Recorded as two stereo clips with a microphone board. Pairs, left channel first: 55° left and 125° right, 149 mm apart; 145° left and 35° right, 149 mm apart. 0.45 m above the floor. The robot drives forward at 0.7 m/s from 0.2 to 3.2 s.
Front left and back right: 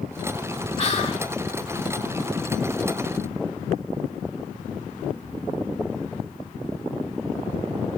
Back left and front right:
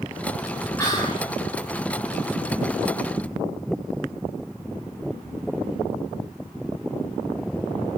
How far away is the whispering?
About 1.2 m.